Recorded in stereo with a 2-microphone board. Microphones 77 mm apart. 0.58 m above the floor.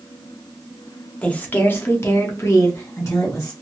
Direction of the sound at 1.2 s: 15° left (ahead or behind).